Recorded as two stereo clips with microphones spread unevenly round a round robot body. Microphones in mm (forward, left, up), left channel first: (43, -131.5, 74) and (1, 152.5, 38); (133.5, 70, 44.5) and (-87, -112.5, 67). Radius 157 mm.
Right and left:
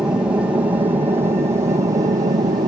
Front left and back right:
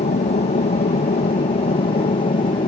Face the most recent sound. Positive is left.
turn(degrees=65)